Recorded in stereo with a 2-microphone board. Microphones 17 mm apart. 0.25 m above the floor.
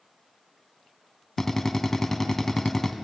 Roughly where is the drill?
Left.